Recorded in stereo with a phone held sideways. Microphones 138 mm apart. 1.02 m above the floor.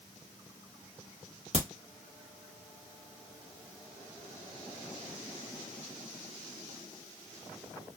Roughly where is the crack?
Right.